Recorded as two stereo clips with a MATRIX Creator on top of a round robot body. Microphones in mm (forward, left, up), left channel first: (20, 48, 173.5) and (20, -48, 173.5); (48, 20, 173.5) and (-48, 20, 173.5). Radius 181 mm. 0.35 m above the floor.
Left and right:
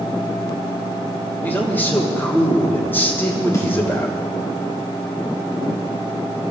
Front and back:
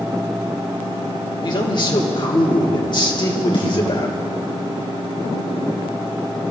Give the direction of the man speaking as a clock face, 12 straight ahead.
11 o'clock.